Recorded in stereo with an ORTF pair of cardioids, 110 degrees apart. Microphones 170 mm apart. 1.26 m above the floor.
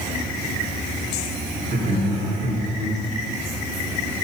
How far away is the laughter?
About 3.5 m.